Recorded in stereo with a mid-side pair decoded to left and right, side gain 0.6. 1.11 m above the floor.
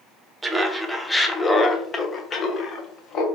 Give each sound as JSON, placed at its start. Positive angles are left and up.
{"t": 0.4, "sound": "laughter", "azimuth_deg": -20, "distance_m": 1.0}